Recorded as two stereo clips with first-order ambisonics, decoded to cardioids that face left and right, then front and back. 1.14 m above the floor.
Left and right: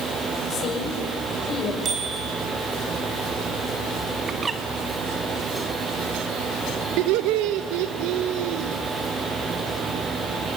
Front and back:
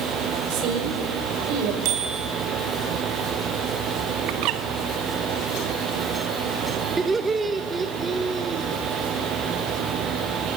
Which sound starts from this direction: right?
Laughter, at 7.0 s.